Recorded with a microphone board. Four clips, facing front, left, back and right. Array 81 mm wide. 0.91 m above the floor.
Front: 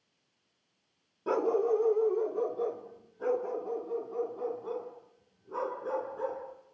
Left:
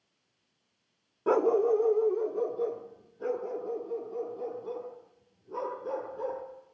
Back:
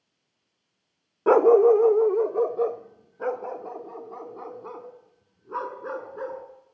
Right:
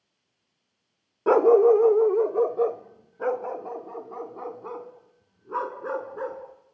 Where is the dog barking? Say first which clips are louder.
Right 8 dB, back 12 dB; 155° right, 0.6 m; by 6.4 s 120° right, 5.5 m.